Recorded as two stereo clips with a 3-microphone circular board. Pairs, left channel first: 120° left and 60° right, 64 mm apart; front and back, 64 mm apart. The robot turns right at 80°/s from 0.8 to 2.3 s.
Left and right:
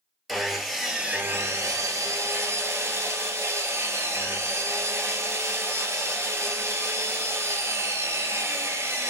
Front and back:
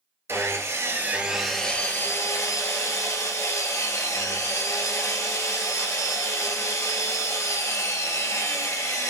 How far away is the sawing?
About 0.5 m.